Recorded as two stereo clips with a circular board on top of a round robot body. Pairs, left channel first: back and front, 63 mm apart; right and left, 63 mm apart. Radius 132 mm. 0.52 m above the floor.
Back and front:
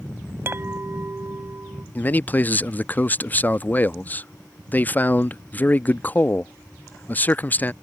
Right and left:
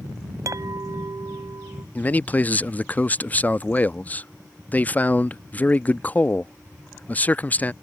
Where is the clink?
55° left.